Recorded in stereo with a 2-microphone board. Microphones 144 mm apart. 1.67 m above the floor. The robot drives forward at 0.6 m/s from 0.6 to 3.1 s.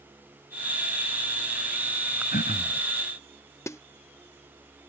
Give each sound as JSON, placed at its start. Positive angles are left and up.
{"t": 2.3, "sound": "throat clearing", "side_deg": 80}
{"t": 3.7, "sound": "a snare drum", "side_deg": 20}